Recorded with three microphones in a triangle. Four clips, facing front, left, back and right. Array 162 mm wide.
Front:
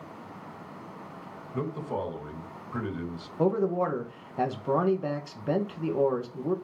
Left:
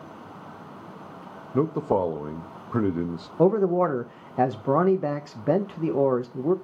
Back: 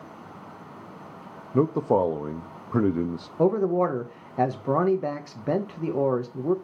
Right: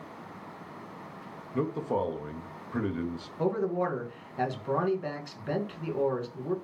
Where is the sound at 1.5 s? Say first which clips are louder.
Left 6 dB, back 11 dB; 155° left, 0.8 m.